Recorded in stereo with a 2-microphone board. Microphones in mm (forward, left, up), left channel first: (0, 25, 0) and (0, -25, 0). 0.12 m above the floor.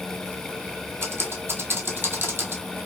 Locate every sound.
1.0 s typing on a keyboard: 45° right (ahead or behind), 0.9 m